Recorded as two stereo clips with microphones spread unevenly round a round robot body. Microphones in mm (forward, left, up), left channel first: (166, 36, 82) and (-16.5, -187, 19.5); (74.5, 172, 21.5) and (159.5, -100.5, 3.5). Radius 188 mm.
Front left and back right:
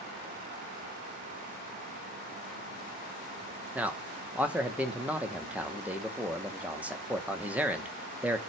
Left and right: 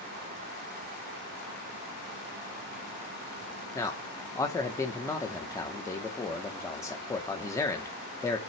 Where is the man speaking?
Straight behind, 0.8 m.